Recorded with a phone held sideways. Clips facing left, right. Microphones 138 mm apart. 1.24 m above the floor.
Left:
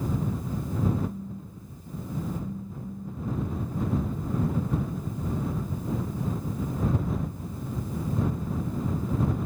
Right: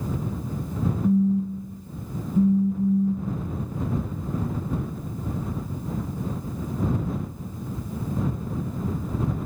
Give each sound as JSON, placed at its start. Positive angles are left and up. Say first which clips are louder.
{"t": 1.0, "sound": "a phone buzzing", "louder": "right 15 dB", "side_deg": -70}